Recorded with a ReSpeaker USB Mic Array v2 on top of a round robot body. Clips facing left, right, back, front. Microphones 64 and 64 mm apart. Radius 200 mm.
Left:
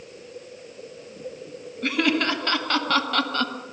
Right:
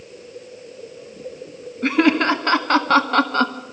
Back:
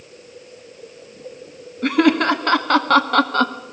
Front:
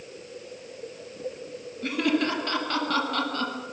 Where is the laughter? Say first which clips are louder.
Right 6 dB, back 9 dB; 150° right, 2.0 m.